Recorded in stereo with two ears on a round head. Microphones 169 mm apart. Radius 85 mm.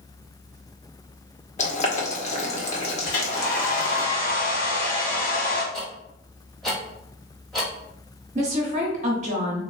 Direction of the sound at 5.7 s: Centre (ahead or behind).